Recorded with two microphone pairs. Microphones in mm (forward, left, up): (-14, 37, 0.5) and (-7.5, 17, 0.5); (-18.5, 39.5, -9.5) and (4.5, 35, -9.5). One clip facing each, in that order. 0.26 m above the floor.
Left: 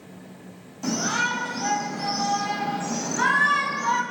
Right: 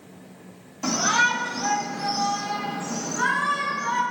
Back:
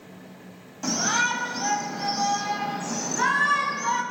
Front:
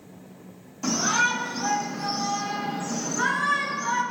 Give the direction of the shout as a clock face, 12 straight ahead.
4 o'clock.